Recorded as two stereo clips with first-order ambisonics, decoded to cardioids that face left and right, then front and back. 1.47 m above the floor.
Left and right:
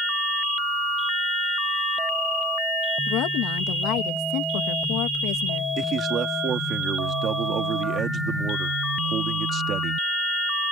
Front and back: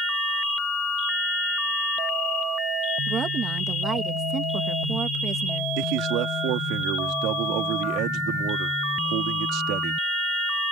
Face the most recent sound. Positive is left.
turn(degrees=-150)